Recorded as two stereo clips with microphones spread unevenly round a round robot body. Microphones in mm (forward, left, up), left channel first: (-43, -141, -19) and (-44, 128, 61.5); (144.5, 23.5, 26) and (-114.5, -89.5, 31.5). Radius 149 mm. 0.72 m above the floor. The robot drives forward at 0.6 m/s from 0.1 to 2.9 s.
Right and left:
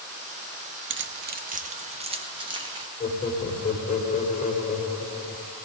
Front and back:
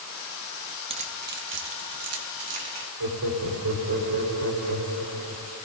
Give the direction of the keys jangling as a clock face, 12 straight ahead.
7 o'clock.